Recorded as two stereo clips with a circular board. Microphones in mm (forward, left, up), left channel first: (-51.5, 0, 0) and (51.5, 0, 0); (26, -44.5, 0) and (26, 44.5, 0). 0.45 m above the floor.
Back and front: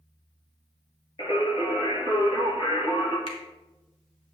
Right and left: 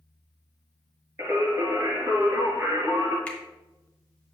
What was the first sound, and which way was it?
Singing, 150° left.